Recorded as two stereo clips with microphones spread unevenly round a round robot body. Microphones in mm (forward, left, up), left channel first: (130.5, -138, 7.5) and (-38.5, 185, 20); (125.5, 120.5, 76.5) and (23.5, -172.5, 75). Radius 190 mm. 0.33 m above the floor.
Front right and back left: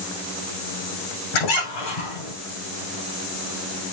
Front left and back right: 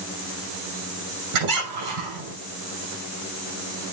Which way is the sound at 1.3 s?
90° right.